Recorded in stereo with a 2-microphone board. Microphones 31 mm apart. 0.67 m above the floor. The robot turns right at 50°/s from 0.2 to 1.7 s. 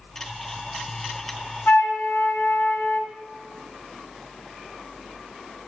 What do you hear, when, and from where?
1.7 s a flute: 85° left, 1.5 m